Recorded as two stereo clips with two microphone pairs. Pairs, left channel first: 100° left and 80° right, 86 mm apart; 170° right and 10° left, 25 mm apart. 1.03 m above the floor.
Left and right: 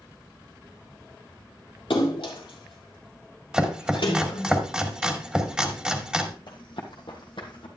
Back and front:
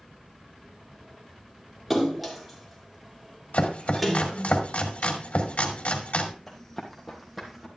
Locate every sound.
1.9 s a splash: 100° left, 3.5 m
3.5 s chopping: 160° right, 1.9 m
6.5 s running footsteps: 115° left, 2.5 m; by 7.7 s 90° left, 3 m